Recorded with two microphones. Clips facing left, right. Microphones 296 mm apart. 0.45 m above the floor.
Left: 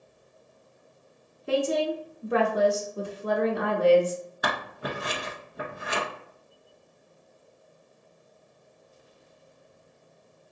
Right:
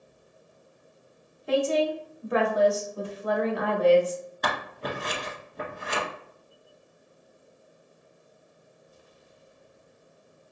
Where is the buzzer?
No buzzer in this recording.